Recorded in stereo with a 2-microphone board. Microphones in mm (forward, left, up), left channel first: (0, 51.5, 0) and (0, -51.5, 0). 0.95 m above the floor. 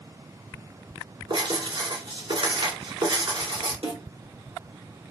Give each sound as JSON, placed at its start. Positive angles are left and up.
{"t": 1.3, "sound": "writing", "side_deg": -60, "distance_m": 2.0}
{"t": 3.8, "sound": "a snare drum", "side_deg": -60, "distance_m": 1.6}